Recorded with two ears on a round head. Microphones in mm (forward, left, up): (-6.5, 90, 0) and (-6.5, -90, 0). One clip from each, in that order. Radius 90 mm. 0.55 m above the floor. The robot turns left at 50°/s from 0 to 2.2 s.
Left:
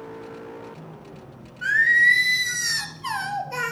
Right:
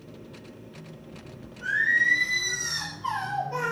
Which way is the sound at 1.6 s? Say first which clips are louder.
Left 6 dB; 80° left.